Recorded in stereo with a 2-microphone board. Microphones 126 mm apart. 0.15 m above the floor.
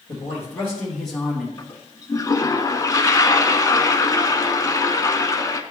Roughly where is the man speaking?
Left.